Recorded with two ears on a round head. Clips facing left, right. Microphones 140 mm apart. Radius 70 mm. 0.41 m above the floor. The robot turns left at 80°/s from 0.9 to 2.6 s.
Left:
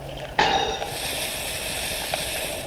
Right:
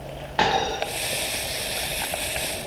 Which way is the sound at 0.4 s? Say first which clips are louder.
Left 1 dB; 15° left (ahead or behind).